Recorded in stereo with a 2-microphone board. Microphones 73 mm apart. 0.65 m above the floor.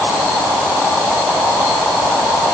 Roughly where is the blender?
I don't hear a blender.